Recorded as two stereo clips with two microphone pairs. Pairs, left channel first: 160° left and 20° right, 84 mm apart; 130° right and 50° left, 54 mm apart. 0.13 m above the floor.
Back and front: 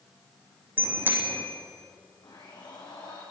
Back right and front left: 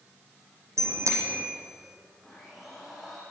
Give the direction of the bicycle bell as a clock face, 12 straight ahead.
11 o'clock.